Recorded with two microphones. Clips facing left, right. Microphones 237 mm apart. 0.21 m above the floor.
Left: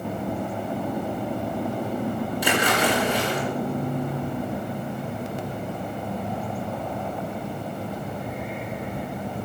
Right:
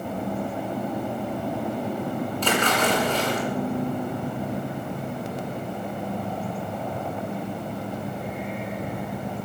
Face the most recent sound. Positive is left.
turn(degrees=10)  # may be behind; listen again after turning